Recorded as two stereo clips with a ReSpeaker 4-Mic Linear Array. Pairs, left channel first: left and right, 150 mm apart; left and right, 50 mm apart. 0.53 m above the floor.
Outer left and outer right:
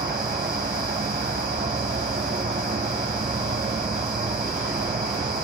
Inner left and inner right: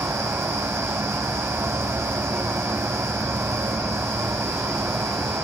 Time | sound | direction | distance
0.0 | an insect | 75° right (ahead or behind) | 2.5 m